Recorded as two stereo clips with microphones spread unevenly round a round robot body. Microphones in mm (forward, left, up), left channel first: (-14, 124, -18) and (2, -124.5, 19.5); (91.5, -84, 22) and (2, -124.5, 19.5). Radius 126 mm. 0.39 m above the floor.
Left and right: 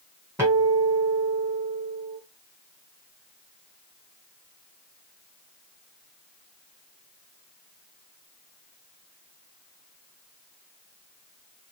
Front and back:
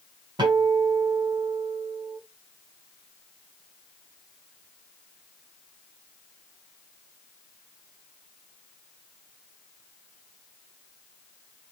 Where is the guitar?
170° right, 1.5 m.